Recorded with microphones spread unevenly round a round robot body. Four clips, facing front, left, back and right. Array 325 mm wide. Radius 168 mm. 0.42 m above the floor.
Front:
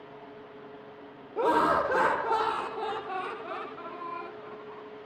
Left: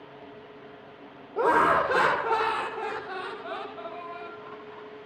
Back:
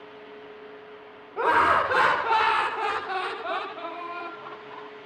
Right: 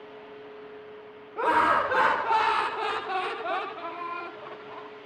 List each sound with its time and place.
1.4 s laughter: 50° left, 1.0 m; by 4.9 s 125° right, 1.3 m